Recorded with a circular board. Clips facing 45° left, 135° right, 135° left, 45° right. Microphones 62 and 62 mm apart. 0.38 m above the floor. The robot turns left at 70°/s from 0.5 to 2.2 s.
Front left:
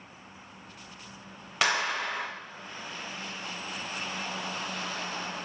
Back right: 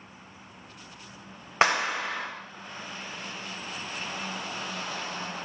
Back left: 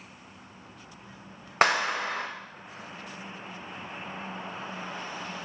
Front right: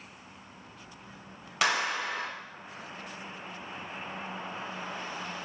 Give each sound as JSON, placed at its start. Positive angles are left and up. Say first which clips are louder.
{"t": 1.6, "sound": "a clap", "louder": "back right 3 dB, back left 4 dB", "azimuth_deg": 170, "distance_m": 1.2}